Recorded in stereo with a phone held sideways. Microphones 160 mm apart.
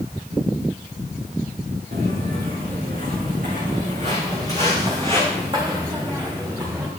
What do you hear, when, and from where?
1.9 s footsteps: 70° right (ahead or behind), 4.5 m; by 6.9 s 25° right (ahead or behind), 5 m